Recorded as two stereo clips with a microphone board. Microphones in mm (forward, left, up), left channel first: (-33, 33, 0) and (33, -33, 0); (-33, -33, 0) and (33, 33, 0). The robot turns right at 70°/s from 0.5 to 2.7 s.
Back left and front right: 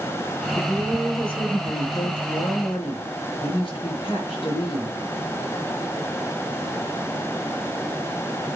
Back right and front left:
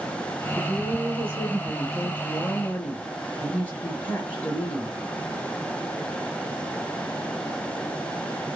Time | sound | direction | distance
0.6 | a woman speaking | 5° left | 5 m